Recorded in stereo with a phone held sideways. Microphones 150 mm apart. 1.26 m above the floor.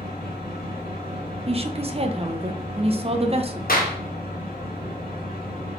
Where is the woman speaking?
40° right (ahead or behind), 0.5 m.